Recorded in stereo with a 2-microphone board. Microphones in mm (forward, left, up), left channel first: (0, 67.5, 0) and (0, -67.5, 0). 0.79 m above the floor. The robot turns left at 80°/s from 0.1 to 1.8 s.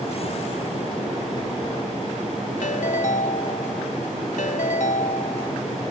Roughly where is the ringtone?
Left.